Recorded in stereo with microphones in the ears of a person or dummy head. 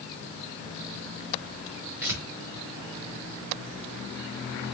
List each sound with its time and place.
2.0 s tearing paper: 15° right (ahead or behind), 1.1 m